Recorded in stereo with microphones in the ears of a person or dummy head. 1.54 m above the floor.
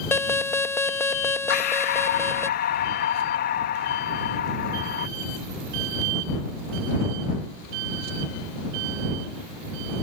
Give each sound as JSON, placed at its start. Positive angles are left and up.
{"t": 0.1, "sound": "an alarm", "side_deg": 15}
{"t": 1.5, "sound": "breathing", "side_deg": 60}